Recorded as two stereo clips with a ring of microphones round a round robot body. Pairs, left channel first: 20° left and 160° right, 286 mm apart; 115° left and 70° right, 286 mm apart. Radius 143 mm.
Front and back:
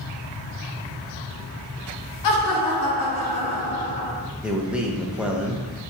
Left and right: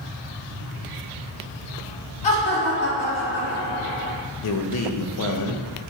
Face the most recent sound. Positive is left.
turn(degrees=115)